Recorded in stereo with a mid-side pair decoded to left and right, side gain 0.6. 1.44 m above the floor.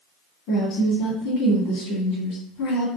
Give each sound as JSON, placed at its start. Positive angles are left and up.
{"t": 0.5, "sound": "a woman speaking", "azimuth_deg": 70, "distance_m": 1.7}